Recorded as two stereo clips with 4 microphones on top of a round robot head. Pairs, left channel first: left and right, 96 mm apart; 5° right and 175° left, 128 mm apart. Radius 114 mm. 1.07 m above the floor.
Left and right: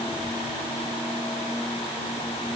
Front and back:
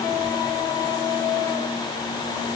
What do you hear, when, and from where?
Only background noise.